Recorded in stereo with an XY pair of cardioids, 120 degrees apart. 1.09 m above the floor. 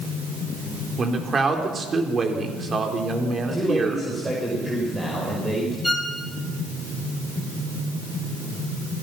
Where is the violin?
10° left, 3 m.